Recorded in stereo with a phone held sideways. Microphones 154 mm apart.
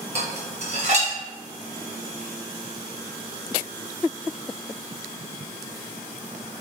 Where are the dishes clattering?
45° right (ahead or behind), 0.8 m.